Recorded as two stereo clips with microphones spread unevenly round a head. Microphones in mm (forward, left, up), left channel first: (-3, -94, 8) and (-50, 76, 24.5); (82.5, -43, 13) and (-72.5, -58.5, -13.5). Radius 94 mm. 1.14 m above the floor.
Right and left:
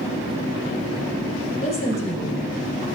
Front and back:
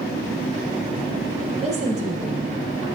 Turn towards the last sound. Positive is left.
turn(degrees=-125)